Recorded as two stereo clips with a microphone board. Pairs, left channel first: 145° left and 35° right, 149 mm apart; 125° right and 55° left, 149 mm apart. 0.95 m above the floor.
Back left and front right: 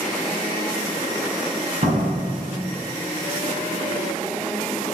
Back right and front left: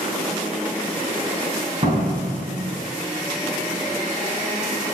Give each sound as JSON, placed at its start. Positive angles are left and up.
{"t": 1.8, "sound": "a door slam", "azimuth_deg": 5, "distance_m": 7.5}